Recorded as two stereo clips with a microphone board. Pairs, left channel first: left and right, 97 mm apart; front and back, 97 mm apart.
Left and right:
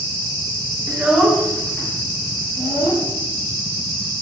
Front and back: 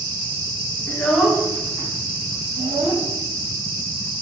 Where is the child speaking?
35° right, 0.7 m; by 3.0 s 155° left, 1.9 m.